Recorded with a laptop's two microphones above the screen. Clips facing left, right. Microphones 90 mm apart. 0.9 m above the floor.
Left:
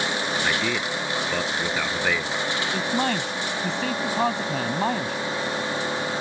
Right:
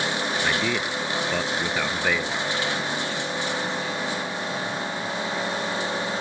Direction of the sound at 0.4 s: Centre (ahead or behind).